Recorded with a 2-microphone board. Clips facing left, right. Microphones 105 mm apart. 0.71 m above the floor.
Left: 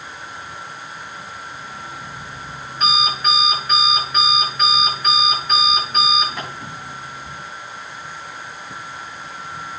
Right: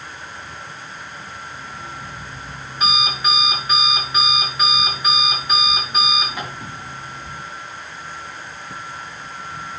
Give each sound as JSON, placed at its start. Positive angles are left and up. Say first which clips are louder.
{"t": 1.5, "sound": "an alarm clock", "louder": "even", "side_deg": -5, "distance_m": 6.0}